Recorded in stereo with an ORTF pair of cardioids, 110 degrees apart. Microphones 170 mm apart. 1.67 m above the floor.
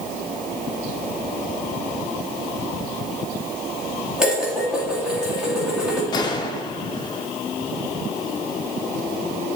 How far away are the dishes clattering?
About 2.5 m.